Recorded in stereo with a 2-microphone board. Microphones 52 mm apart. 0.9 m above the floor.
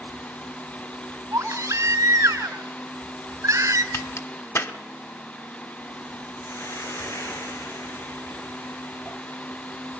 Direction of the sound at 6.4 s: 65° left (ahead or behind).